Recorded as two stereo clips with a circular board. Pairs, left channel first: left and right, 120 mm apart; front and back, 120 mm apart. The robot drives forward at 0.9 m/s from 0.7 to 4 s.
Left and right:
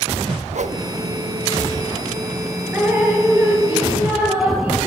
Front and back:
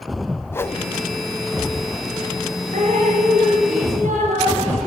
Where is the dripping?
165° right, 3 m; by 4.8 s 170° right, 4 m.